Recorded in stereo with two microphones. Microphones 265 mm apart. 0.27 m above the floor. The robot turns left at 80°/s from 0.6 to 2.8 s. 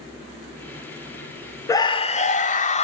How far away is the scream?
About 1.0 m.